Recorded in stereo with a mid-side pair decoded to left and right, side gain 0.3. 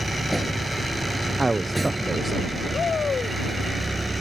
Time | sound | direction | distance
0.0 | a vehicle | 15° right | ?
1.4 | a man speaking | 30° right | ?
2.7 | a shout | 60° left | ?